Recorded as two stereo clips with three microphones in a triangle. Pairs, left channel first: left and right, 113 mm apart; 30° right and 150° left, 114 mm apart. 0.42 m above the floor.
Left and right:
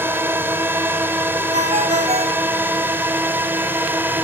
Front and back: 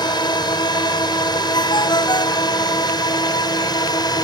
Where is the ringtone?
80° right.